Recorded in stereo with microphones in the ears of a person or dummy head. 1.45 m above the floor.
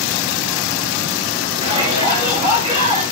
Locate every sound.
1.6 s a shout: 25° right (ahead or behind), 6.5 m